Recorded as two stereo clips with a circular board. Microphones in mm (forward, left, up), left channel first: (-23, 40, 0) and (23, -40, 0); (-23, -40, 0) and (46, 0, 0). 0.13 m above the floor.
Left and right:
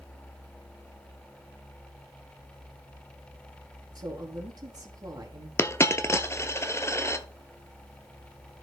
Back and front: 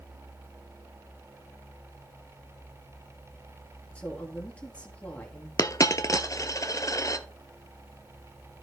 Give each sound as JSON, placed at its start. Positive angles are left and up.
{"t": 4.0, "sound": "a woman speaking", "azimuth_deg": -80, "distance_m": 2.5}
{"t": 5.6, "sound": "a dropped coin", "azimuth_deg": 175, "distance_m": 0.7}